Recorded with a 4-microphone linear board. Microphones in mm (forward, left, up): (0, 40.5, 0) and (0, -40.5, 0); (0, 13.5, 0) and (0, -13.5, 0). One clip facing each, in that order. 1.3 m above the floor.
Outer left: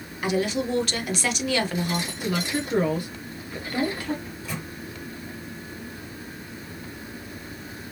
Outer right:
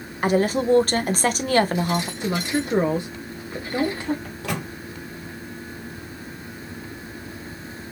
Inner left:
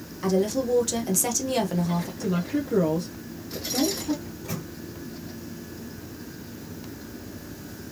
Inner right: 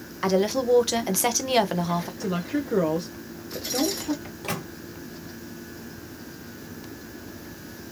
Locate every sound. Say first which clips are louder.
0.2 s a woman speaking: outer right 5 dB, inner right 2 dB; 45° right (ahead or behind), 0.7 m
2.2 s a woman speaking: outer right 3 dB, inner left 1 dB; 25° right (ahead or behind), 0.7 m
4.2 s a microwave: outer right 5 dB, inner right 3 dB; 75° right (ahead or behind), 0.6 m